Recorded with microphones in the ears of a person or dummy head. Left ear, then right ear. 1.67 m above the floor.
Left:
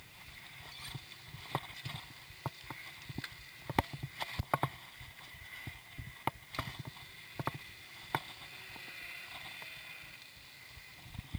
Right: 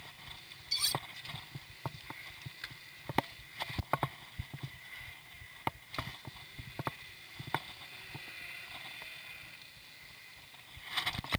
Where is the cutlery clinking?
50° right (ahead or behind).